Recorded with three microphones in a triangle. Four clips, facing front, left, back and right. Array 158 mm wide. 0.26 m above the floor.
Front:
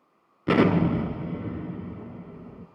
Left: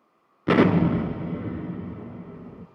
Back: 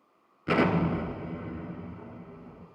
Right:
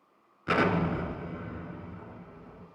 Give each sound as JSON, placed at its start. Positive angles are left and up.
{"t": 0.5, "sound": "an explosion", "azimuth_deg": 60, "distance_m": 1.1}